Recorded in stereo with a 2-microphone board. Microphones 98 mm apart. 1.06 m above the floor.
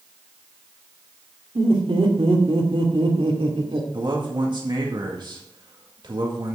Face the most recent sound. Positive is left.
turn(degrees=-55)  # may be behind; listen again after turning